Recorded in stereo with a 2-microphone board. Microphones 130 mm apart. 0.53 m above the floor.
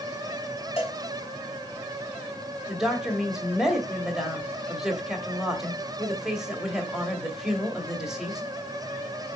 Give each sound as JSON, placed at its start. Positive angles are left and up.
{"t": 0.8, "sound": "a cowbell", "side_deg": 50, "distance_m": 3.5}
{"t": 2.7, "sound": "a woman speaking", "side_deg": -5, "distance_m": 1.9}